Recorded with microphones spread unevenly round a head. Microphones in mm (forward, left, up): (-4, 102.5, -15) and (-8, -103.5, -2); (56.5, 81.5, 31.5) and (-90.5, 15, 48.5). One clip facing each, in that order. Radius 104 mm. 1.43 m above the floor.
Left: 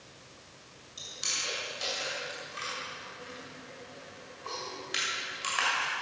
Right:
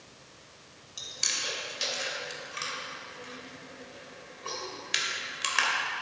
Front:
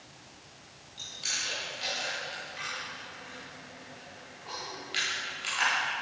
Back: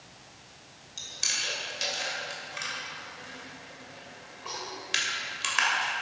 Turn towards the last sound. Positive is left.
turn(degrees=-135)